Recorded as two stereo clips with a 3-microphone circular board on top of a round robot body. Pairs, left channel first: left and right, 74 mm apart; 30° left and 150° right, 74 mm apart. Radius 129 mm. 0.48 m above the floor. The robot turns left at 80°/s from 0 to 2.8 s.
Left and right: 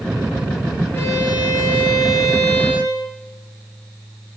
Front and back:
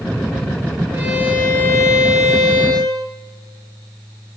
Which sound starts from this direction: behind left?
A violin, at 0.9 s.